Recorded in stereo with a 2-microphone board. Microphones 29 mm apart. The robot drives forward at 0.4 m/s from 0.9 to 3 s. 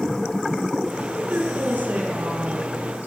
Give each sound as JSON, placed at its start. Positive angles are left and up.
{"t": 1.0, "sound": "a woman speaking", "side_deg": -85, "distance_m": 6.5}